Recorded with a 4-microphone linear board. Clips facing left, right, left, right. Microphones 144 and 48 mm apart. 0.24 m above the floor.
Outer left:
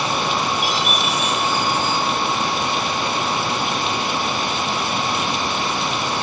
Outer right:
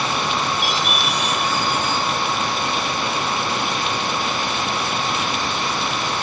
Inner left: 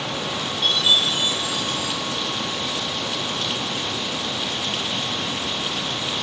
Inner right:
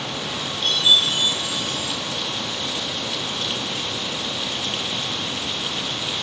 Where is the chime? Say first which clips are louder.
Outer left 1 dB, inner right 1 dB; 80° right, 3.5 m.